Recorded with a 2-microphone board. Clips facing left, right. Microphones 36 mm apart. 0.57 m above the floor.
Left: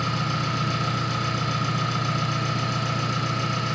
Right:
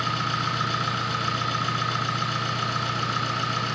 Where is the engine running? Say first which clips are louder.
Right 1 dB; 45° right (ahead or behind), 3.5 m.